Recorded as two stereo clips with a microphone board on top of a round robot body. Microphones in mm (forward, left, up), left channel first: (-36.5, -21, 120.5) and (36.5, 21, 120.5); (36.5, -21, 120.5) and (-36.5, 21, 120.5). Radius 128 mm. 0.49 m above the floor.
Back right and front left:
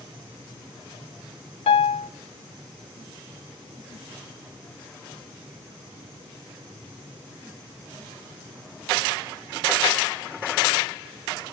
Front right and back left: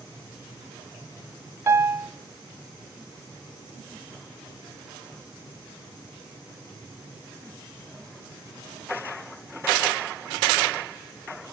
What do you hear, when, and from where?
1.7 s a piano: 150° right, 0.5 m